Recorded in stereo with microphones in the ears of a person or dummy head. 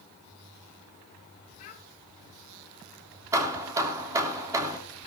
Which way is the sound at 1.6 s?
45° left (ahead or behind).